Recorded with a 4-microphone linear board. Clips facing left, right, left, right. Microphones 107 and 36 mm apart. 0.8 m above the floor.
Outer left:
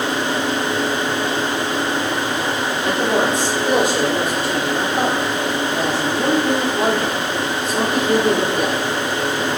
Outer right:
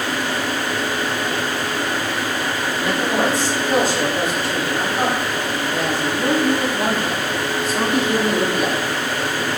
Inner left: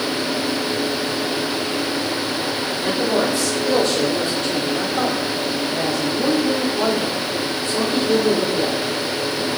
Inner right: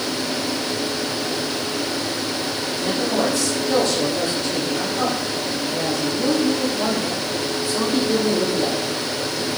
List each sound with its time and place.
2.8 s a man speaking: 55° left (ahead or behind), 2.5 m; by 8.9 s 40° left (ahead or behind), 2.5 m